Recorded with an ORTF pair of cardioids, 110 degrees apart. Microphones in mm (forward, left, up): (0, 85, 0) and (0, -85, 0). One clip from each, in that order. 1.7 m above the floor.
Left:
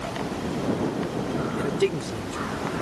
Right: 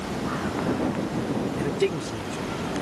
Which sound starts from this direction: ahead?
A man speaking, at 1.6 s.